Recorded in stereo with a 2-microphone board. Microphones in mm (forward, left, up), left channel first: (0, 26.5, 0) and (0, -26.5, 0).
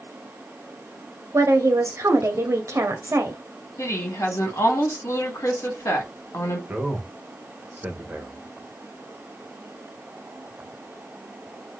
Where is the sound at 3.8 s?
65° left (ahead or behind), 1.8 m.